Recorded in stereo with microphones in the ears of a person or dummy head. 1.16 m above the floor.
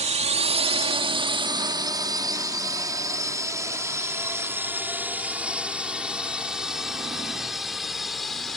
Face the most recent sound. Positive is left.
turn(degrees=5)  # may be behind; listen again after turning